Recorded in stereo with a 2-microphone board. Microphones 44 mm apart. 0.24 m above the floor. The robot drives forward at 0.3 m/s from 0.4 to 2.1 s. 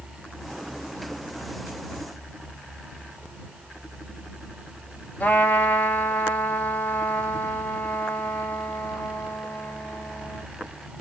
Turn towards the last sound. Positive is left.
turn(degrees=30)  # may be behind; listen again after turning